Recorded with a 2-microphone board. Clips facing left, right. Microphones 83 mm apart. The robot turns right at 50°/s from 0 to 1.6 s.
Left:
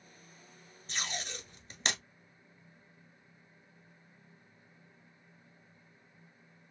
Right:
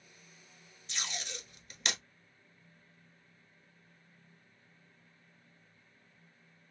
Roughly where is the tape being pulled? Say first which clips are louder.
Left 3 dB; left.